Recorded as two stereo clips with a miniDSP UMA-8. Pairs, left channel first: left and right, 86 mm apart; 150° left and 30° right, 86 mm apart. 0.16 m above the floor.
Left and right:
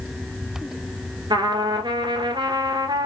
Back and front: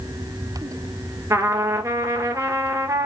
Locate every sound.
1.3 s a trumpet: 80° right, 1.2 m